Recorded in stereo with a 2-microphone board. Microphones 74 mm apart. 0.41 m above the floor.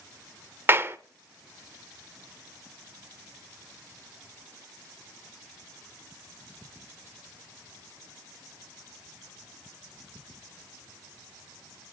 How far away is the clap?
About 1.0 m.